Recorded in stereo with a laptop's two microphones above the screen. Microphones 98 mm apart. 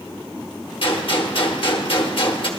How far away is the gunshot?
About 1.2 m.